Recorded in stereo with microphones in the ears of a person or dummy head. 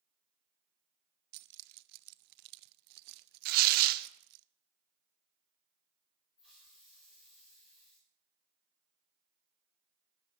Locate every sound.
1.3 s keys jangling: 60° right (ahead or behind), 0.5 m
3.5 s tearing paper: 50° right (ahead or behind), 0.7 m
6.4 s a hiss: centre (ahead or behind), 5.5 m